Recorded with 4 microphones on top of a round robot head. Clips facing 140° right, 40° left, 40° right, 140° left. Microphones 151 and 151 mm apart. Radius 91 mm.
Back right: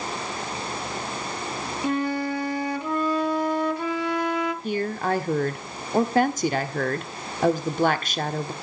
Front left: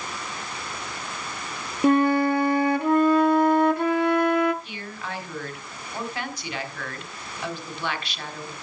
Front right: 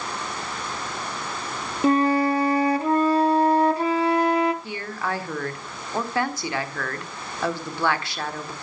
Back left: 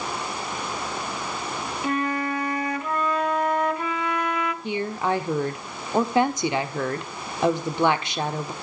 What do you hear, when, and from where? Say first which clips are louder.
1.8 s a flute: front left 7 dB, front right 8 dB; 15° left, 1.0 m
4.6 s a woman speaking: back right 11 dB, back left 5 dB; 155° right, 1.4 m